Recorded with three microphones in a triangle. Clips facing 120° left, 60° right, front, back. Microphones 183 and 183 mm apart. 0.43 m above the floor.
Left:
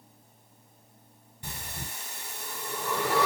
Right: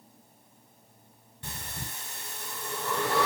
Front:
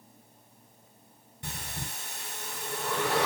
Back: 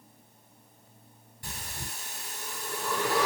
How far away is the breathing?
About 1.0 m.